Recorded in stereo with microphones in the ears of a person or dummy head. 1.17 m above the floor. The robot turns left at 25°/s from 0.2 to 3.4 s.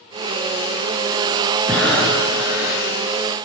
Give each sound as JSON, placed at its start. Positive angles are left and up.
{"t": 1.7, "sound": "breathing", "side_deg": 10, "distance_m": 9.5}